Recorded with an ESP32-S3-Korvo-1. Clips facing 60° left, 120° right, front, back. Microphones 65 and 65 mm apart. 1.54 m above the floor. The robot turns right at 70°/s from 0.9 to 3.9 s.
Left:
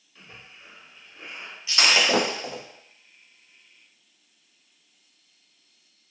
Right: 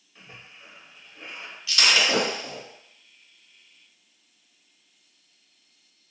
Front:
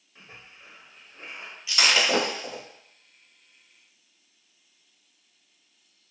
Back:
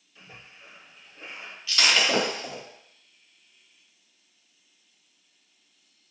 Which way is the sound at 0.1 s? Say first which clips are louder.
Even, even; 50° right.